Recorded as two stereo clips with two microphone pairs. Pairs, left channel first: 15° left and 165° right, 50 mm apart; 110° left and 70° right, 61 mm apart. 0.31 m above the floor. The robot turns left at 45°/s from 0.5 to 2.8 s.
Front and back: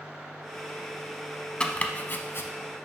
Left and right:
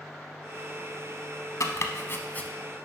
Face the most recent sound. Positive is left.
turn(degrees=30)